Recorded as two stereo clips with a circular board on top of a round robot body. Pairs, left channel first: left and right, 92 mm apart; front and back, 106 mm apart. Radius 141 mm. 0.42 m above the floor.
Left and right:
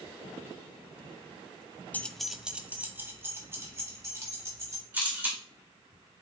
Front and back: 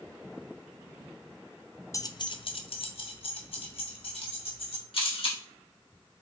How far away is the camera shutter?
About 1.8 m.